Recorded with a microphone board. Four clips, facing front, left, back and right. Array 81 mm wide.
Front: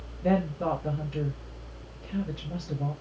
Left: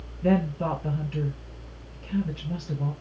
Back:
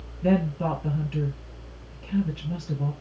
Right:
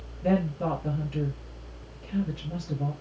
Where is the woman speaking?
155° left, 2.5 m.